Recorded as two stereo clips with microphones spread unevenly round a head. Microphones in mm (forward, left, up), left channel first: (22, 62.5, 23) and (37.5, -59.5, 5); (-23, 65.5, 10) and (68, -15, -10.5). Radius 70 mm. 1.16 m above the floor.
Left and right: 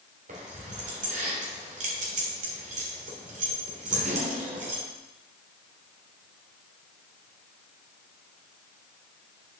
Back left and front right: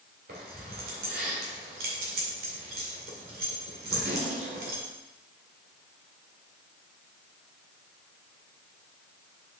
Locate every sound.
0.3 s keys jangling: 60° right, 2.5 m